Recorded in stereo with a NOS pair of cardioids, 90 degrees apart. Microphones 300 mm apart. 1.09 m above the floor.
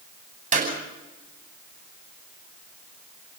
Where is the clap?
25° right, 9 m.